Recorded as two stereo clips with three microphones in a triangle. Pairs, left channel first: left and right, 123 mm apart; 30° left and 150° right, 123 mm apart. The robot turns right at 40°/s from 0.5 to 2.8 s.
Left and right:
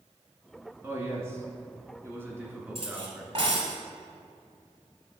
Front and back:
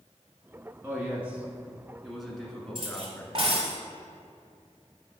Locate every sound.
0.8 s a man speaking: 115° right, 1.1 m; by 3.6 s 35° right, 1.1 m
2.8 s cutlery clinking: 115° right, 1.5 m